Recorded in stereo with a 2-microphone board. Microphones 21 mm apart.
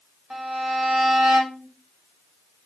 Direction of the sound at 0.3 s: 60° right (ahead or behind).